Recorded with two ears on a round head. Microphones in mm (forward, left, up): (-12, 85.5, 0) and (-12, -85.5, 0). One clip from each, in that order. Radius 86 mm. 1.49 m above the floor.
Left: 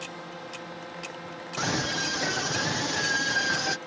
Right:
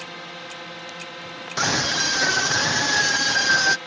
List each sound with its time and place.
0.0 s a drone: 65° right (ahead or behind)
1.6 s a scream: 50° right (ahead or behind)